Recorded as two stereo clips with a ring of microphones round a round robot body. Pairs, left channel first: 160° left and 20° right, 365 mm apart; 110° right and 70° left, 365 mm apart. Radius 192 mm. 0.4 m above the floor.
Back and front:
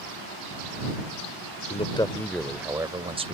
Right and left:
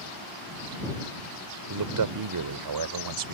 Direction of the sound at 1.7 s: 90° left.